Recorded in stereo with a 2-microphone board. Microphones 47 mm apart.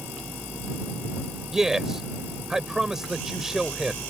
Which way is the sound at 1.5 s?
10° right (ahead or behind).